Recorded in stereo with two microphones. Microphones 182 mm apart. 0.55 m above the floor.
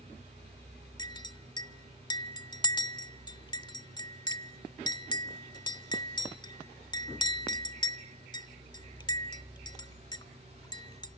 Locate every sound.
1.0 s a clink: 25° left (ahead or behind), 0.7 m